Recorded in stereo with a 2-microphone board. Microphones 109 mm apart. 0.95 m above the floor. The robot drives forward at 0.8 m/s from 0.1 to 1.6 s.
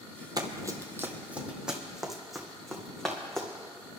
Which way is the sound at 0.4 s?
40° right (ahead or behind).